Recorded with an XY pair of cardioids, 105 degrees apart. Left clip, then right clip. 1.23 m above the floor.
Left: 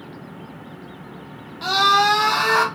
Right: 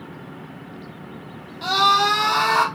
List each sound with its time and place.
1.6 s a scream: 10° left, 1.2 m